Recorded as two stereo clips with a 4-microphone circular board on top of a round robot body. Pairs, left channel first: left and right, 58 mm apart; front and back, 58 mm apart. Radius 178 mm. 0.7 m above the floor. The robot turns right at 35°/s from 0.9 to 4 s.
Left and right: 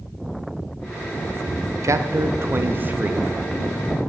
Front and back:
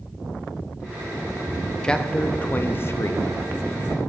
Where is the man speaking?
75° right, 1.2 m; by 3.2 s 25° right, 1.2 m.